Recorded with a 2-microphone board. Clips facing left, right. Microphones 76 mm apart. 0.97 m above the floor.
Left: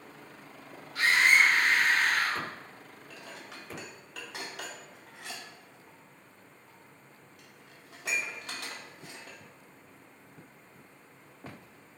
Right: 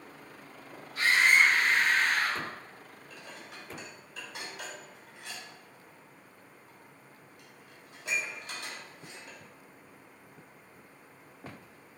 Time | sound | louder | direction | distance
0.9 | a scream | even | 80° left | 3 m
3.1 | dishes clattering | left 1 dB | 85° left | 1.8 m